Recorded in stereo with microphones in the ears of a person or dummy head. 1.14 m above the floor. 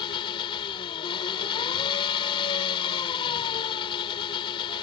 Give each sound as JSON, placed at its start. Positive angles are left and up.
{"t": 0.0, "sound": "an engine running", "side_deg": 30}